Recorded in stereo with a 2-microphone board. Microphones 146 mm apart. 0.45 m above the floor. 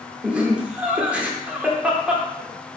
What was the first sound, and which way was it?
Laughter, 10° right (ahead or behind).